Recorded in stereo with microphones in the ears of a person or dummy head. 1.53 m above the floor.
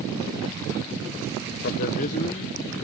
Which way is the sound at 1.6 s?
50° left (ahead or behind).